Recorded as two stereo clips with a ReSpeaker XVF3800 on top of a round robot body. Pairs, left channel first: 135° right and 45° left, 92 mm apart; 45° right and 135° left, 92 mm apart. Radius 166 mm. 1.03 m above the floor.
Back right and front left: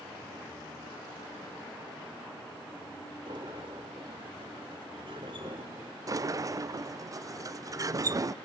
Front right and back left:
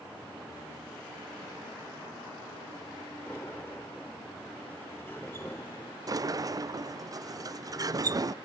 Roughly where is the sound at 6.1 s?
Left.